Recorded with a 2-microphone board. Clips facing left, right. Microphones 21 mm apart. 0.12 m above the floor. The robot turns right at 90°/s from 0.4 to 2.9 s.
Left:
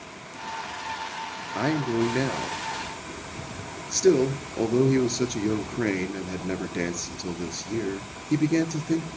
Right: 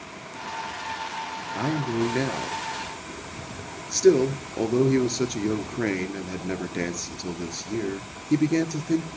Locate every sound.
1.6 s a man speaking: 85° left, 1.8 m; by 9.1 s 155° right, 1.8 m